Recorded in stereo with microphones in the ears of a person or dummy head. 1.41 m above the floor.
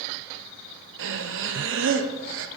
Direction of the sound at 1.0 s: 60° right (ahead or behind).